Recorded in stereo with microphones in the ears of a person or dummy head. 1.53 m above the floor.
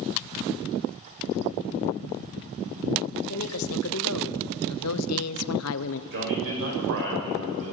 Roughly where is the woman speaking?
Left.